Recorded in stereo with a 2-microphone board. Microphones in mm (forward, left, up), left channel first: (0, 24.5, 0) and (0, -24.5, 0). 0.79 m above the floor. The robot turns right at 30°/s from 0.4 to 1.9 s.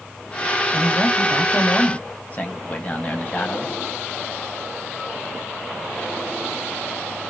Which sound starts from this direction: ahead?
A man speaking, at 0.7 s.